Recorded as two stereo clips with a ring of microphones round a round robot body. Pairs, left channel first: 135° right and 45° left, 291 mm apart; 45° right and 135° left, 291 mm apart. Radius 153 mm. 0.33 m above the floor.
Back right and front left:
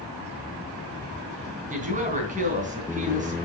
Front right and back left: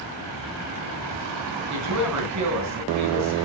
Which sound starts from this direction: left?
A woman speaking, at 1.7 s.